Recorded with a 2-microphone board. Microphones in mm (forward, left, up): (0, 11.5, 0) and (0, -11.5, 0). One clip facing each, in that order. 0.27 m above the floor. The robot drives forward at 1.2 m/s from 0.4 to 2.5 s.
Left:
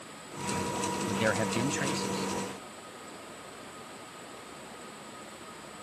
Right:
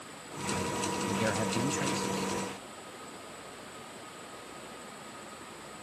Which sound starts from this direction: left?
A man speaking, at 1.1 s.